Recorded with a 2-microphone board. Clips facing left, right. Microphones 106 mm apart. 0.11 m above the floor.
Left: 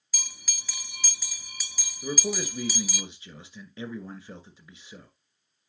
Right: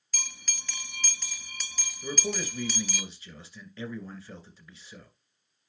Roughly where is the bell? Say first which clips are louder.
Right 3 dB; centre.